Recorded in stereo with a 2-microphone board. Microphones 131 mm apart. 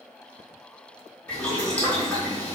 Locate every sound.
1.3 s boiling: 15° left (ahead or behind), 1.8 m